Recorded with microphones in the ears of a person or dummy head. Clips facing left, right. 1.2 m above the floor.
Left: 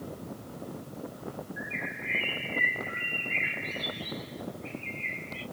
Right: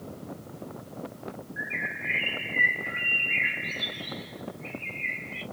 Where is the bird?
45° right (ahead or behind), 1.2 m.